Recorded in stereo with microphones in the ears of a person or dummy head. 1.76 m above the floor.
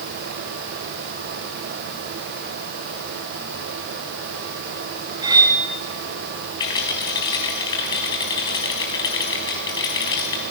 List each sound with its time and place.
5.2 s cutlery clinking: 25° right (ahead or behind), 2 m
6.6 s a rattle: 20° left (ahead or behind), 4.5 m